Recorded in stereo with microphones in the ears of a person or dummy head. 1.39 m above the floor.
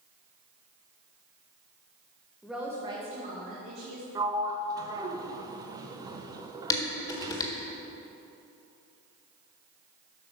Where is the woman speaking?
Centre (ahead or behind), 1.3 m; by 4.0 s 65° right (ahead or behind), 2 m.